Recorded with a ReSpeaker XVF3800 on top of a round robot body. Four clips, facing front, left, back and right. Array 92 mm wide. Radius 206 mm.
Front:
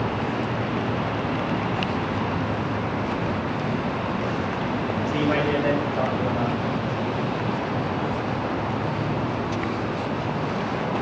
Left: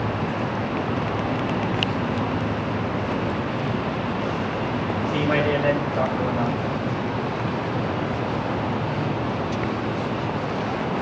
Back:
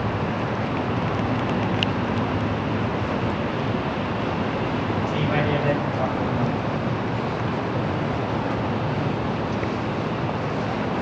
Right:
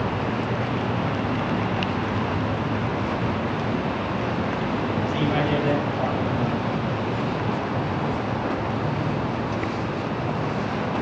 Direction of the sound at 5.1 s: 60° left.